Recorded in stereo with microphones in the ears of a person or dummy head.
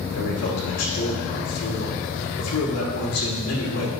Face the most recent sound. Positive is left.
turn(degrees=80)